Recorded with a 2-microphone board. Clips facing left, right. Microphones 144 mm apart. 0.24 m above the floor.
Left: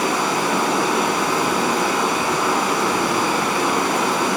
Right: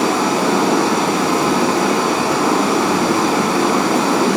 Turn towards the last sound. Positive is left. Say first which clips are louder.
# right 5 dB
turn(degrees=-70)  # may be behind; listen again after turning